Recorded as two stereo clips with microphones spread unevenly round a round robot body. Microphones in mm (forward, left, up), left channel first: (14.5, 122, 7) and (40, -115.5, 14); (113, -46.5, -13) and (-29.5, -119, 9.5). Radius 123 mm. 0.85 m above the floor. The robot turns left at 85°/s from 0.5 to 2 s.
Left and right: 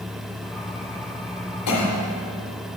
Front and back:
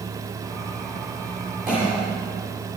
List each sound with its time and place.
1.7 s a cough: 125° left, 2 m; by 1.9 s 100° left, 2 m